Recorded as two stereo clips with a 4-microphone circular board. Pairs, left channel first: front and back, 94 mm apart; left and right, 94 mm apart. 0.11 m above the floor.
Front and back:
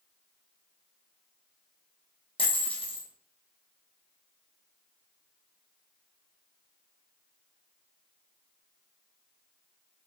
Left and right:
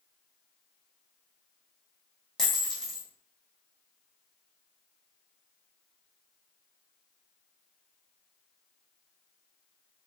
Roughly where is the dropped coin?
Ahead.